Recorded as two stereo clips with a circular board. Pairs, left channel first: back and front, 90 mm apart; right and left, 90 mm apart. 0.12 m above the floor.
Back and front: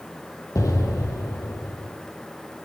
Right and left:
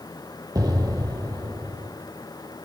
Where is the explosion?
130° left, 2.5 m.